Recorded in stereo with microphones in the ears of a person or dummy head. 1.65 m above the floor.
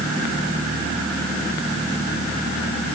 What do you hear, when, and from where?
Only background noise.